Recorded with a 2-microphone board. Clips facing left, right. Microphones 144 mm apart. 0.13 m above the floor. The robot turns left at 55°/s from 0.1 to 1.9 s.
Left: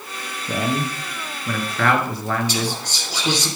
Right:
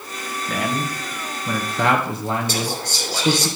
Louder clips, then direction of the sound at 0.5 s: Left 2 dB; 30° left (ahead or behind).